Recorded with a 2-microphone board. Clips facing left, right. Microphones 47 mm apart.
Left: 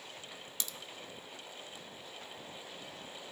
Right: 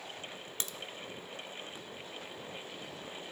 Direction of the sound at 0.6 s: 40° right (ahead or behind).